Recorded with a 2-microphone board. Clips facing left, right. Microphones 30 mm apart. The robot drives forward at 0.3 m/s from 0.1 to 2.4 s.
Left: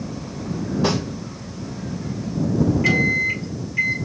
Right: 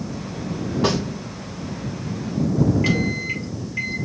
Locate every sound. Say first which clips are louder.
0.8 s a snare drum: right 1 dB; 50° right (ahead or behind), 2.5 m
2.8 s a microwave: left 4 dB; 25° right (ahead or behind), 1.5 m